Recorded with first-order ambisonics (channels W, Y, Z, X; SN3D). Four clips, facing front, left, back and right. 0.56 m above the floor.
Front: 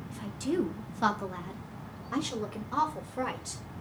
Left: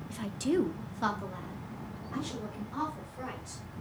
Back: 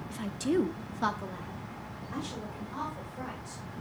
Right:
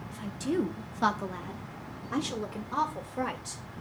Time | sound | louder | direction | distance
0.1 | a woman speaking | left 1 dB, back 2 dB | 135° left | 0.9 m